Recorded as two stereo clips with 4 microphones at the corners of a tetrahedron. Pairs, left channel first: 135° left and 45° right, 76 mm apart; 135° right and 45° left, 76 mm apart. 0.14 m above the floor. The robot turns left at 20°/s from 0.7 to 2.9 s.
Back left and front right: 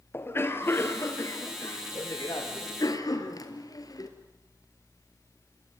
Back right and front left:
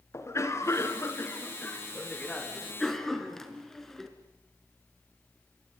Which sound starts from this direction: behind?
A cough, at 0.1 s.